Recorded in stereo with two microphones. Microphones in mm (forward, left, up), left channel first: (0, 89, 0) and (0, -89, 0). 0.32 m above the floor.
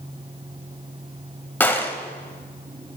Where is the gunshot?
10° left (ahead or behind), 1.2 m.